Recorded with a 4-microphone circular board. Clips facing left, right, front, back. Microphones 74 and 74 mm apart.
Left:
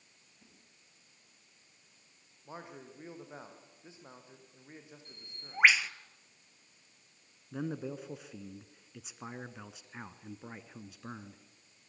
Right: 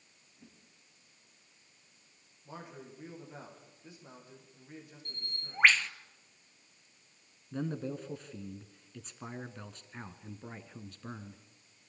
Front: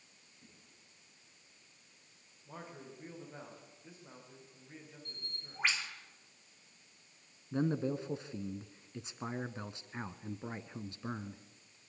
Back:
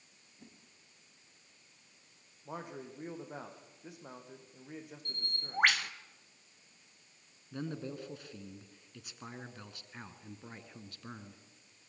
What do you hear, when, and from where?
0.4 s a whoosh: 170° right, 8.5 m
2.5 s a man speaking: 155° left, 6 m
5.0 s a bird: 170° left, 0.8 m
7.5 s a man speaking: 20° left, 1.2 m